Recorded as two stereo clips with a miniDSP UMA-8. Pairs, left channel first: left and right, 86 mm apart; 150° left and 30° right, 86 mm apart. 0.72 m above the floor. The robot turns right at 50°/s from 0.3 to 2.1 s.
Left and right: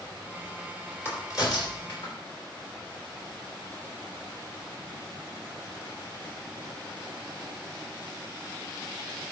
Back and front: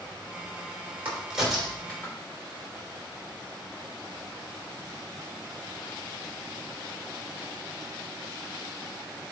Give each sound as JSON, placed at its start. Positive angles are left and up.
{"t": 1.1, "sound": "a crack", "azimuth_deg": 35, "distance_m": 3.0}